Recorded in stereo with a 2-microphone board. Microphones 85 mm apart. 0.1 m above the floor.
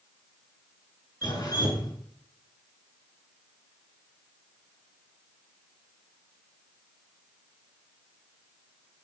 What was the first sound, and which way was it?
Dripping, 50° left (ahead or behind).